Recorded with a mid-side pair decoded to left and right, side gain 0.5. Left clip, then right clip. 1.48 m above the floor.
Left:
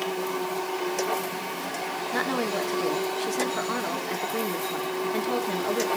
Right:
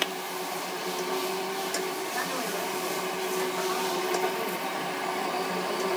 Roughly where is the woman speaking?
Ahead left.